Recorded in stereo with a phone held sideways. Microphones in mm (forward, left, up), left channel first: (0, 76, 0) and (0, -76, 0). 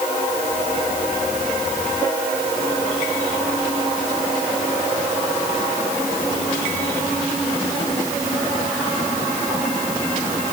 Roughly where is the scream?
No scream in this recording.